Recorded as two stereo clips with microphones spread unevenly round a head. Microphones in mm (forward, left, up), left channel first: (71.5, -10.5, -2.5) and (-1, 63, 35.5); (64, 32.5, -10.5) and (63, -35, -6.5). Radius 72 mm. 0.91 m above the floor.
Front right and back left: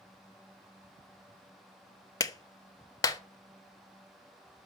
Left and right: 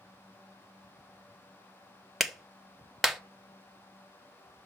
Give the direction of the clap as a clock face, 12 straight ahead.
12 o'clock.